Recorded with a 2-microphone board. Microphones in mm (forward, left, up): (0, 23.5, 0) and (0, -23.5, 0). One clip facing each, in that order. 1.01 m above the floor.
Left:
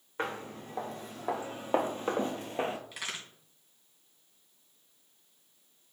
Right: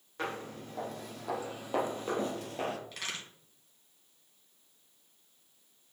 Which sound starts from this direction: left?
Footsteps, at 0.2 s.